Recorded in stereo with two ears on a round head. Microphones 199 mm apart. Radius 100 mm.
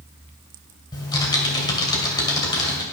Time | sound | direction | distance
0.9 | typing on a keyboard | 20° left (ahead or behind) | 2.5 m